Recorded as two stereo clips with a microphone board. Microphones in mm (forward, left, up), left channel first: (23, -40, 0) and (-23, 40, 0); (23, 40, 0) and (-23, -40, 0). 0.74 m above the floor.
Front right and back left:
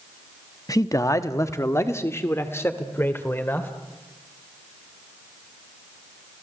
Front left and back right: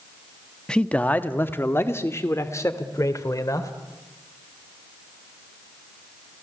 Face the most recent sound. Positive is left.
turn(degrees=5)